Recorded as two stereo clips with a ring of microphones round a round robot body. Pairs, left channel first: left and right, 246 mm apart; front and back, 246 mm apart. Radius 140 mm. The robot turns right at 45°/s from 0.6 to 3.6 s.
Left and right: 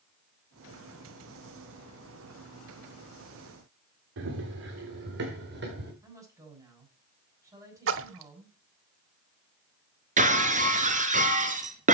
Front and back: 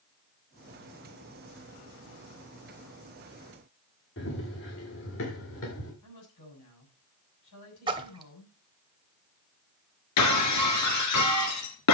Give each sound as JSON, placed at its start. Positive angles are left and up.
{"t": 4.2, "sound": "running footsteps", "azimuth_deg": -50, "distance_m": 3.5}
{"t": 6.0, "sound": "a woman speaking", "azimuth_deg": -15, "distance_m": 7.5}
{"t": 7.9, "sound": "a splash", "azimuth_deg": -110, "distance_m": 0.6}
{"t": 10.2, "sound": "breaking glass", "azimuth_deg": -30, "distance_m": 1.6}